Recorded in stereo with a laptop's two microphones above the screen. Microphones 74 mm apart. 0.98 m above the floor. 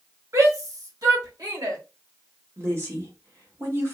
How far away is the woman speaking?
About 1.2 m.